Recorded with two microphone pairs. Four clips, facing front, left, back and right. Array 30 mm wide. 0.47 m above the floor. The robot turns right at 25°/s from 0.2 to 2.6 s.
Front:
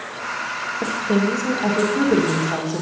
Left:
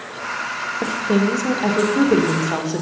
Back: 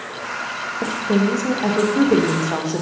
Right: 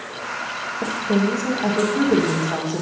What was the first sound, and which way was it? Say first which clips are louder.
A woman speaking: left 2 dB, back 1 dB; 85° left.